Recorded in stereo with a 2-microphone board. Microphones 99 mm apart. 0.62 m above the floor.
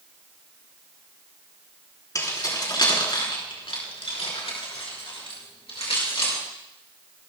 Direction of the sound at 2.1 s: 40° left (ahead or behind).